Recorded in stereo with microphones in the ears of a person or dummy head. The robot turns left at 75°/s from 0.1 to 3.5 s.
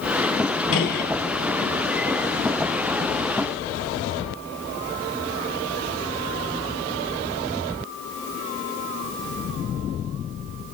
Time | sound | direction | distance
0.7 | a gunshot | 75° left (ahead or behind) | 4 m